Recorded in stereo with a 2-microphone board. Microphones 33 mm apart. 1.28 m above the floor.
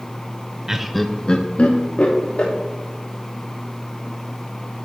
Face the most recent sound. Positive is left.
turn(degrees=55)  # may be behind; listen again after turning